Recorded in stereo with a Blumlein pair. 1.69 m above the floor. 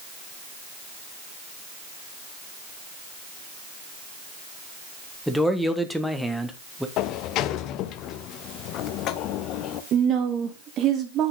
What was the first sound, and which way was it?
A man speaking, straight ahead.